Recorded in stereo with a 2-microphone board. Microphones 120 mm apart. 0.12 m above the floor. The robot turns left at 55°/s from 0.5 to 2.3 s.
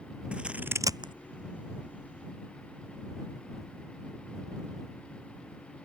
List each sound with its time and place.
0.3 s scissors: 10° right (ahead or behind); by 1.1 s 45° right (ahead or behind)